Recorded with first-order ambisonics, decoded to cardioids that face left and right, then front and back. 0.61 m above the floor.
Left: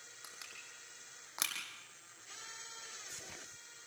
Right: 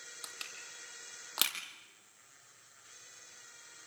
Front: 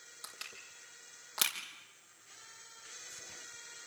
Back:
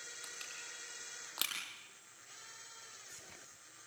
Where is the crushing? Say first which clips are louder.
Right 5 dB, front 4 dB; 80° right, 4.5 m.